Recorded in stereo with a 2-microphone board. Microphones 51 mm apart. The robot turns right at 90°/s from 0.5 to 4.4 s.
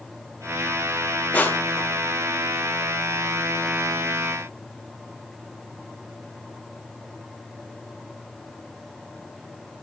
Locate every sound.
1.3 s crushing: 30° left (ahead or behind), 1.5 m; by 1.9 s 75° left (ahead or behind), 1.5 m